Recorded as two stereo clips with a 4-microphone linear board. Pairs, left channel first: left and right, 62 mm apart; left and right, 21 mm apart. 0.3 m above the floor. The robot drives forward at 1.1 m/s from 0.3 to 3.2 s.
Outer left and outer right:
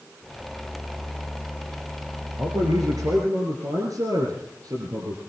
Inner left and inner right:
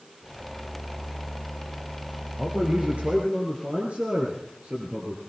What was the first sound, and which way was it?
A man speaking, 75° right (ahead or behind).